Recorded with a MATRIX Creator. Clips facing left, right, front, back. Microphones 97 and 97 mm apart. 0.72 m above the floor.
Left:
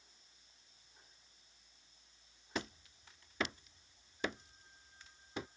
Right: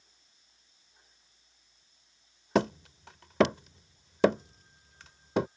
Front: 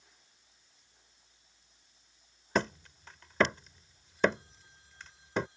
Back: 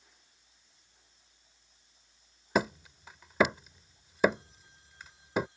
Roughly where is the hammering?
Right.